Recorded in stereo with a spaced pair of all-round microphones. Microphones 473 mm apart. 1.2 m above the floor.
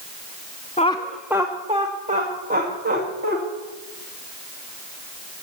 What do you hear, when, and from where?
0.8 s laughter: 15° left (ahead or behind), 0.7 m; by 3.4 s 20° right (ahead or behind), 3 m